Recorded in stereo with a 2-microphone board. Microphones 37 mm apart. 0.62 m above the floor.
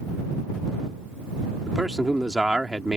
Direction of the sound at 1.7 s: 20° right (ahead or behind).